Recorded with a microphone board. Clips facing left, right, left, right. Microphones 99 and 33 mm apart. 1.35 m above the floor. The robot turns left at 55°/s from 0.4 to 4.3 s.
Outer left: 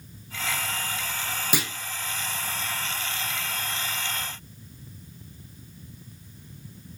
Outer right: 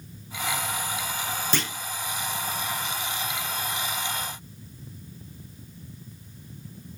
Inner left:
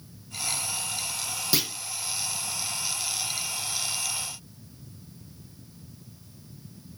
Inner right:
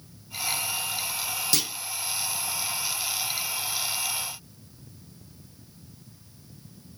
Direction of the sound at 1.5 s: 10° left (ahead or behind).